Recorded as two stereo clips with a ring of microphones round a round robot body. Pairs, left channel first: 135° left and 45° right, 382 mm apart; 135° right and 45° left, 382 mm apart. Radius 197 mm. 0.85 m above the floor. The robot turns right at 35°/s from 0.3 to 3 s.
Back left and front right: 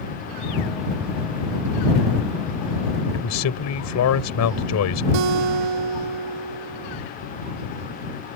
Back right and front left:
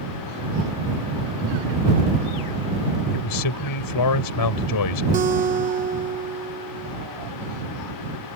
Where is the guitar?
25° right.